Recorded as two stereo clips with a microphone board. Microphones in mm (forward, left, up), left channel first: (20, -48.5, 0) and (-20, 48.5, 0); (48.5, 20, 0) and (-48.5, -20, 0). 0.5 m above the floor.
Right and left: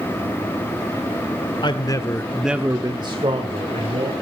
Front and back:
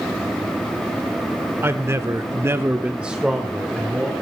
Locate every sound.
1.6 s a man speaking: 95° right, 1.4 m; by 4.1 s 110° left, 2.5 m